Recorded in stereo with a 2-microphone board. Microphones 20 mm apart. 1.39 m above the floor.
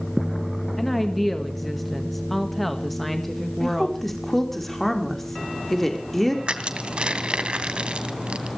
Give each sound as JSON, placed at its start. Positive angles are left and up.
{"t": 0.8, "sound": "a woman speaking", "side_deg": 5, "distance_m": 1.7}
{"t": 3.6, "sound": "a woman speaking", "side_deg": 10, "distance_m": 4.5}
{"t": 6.5, "sound": "crushing", "side_deg": -55, "distance_m": 2.0}